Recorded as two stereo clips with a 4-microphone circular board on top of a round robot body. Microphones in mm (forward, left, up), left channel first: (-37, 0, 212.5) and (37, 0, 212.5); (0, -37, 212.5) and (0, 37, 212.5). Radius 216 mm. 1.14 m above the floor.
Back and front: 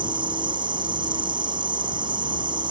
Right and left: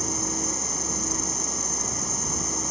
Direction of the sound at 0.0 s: Straight ahead.